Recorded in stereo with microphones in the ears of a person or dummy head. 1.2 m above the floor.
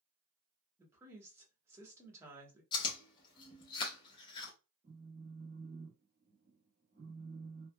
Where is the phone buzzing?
30° right (ahead or behind), 0.9 m.